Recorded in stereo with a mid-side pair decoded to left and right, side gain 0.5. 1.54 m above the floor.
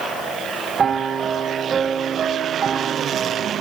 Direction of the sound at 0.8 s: 40° right.